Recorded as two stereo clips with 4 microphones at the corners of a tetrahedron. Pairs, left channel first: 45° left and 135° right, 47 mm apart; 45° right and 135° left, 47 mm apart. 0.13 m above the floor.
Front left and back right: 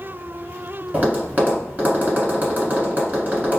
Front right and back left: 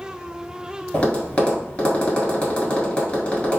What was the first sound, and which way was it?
Tapping, 105° right.